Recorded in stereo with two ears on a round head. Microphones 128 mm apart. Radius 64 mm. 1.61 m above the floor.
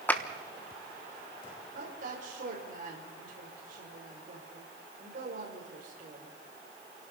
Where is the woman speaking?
60° right (ahead or behind), 6 m.